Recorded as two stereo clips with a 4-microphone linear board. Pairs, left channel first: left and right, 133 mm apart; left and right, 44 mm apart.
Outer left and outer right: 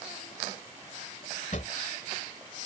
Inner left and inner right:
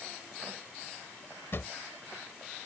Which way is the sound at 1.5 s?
60° left (ahead or behind).